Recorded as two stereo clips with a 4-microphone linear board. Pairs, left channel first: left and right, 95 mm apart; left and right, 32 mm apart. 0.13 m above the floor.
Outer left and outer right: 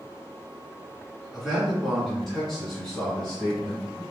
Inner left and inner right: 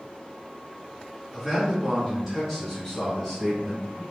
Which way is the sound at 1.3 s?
5° right (ahead or behind).